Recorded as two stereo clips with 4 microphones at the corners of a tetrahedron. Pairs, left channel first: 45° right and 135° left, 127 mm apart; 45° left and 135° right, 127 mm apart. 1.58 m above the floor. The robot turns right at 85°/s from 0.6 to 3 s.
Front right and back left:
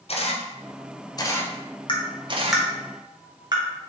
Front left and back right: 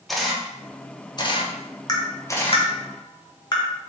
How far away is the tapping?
About 0.9 m.